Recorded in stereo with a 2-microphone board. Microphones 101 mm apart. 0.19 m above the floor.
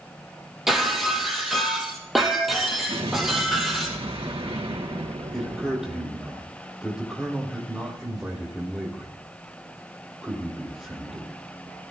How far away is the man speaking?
About 5 m.